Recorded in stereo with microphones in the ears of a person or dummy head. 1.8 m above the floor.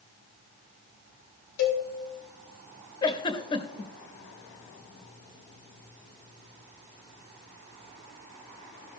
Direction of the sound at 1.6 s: 60° left (ahead or behind).